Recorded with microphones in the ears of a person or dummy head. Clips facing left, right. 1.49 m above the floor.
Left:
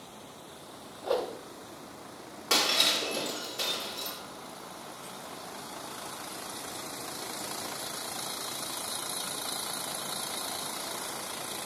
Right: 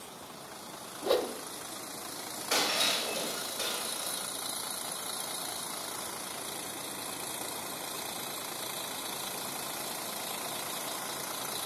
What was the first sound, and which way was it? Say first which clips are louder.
A whoosh: right 1 dB; 25° right (ahead or behind).